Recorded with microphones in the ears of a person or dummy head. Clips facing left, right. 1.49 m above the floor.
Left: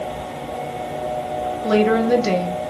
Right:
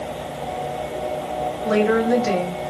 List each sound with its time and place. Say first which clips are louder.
1.6 s a woman speaking: left 2 dB; 55° left (ahead or behind), 1.4 m